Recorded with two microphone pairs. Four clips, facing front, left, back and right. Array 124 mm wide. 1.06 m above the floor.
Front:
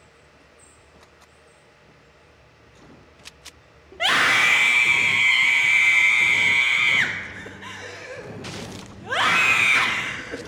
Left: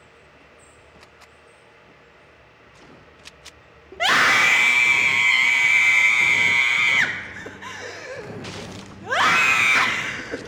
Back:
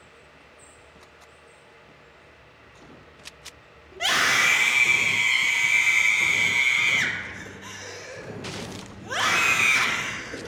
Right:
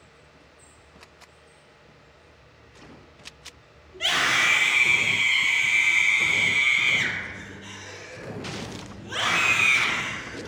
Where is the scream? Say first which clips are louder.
Left 7 dB, front 3 dB; 75° left, 1.2 m.